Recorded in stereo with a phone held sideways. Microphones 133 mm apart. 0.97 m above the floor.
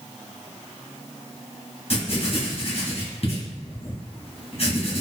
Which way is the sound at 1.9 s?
50° left (ahead or behind).